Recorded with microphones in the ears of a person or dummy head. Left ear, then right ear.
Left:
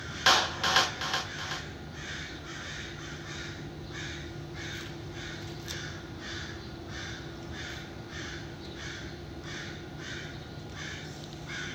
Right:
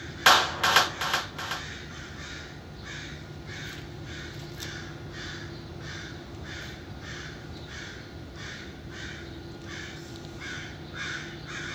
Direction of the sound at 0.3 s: 25° right (ahead or behind).